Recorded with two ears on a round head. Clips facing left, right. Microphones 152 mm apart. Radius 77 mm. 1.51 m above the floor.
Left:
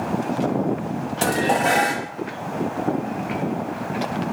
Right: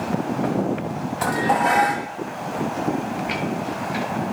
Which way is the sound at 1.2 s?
30° left (ahead or behind).